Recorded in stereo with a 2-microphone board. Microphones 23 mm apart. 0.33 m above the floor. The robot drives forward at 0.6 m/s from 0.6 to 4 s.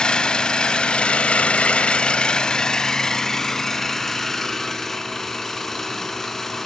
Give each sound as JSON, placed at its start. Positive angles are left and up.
{"t": 0.0, "sound": "an engine running", "side_deg": 40, "distance_m": 0.8}